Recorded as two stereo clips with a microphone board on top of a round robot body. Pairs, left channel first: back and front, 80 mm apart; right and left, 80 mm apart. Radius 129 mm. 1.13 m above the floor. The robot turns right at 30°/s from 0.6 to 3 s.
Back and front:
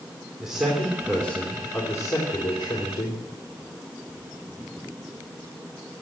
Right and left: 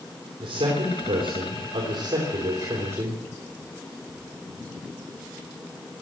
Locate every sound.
0.4 s a man speaking: 80° left, 3.5 m; by 3.2 s 155° left, 3.5 m